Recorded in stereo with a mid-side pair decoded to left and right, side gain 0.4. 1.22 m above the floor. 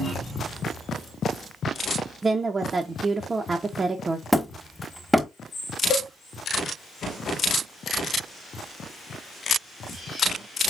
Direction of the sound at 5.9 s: 65° left.